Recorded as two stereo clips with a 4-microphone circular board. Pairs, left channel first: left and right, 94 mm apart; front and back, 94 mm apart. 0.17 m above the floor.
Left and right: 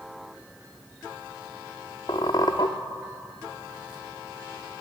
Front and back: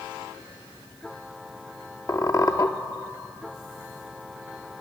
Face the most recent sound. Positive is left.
turn(degrees=50)